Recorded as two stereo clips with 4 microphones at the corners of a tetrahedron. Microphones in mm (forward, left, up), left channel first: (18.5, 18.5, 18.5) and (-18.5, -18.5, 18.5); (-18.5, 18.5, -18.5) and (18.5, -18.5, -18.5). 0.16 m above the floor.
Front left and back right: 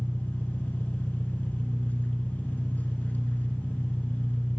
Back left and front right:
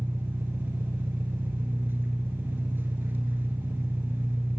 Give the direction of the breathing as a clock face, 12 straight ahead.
I don't hear breathing.